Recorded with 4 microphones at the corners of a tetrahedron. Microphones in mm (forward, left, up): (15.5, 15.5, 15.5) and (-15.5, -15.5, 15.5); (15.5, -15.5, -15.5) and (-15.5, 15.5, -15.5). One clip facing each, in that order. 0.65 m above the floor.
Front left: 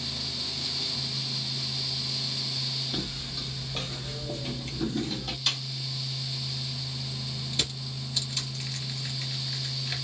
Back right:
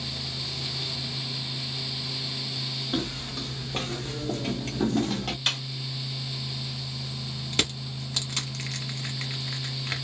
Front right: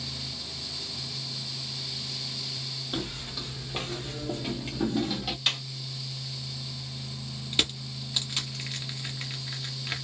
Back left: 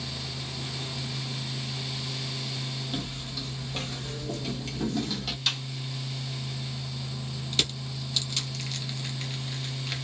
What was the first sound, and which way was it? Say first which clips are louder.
Footsteps: back right 4 dB, even; 110° right.